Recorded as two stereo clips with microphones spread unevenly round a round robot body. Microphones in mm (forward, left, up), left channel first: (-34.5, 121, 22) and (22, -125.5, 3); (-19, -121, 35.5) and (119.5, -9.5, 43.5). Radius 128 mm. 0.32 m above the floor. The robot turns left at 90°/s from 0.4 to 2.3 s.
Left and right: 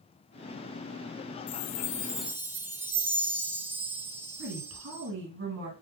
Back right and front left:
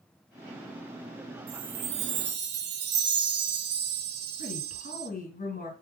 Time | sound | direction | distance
1.5 | a chime | 80° left | 0.5 m
4.4 | a woman speaking | 115° right | 2.5 m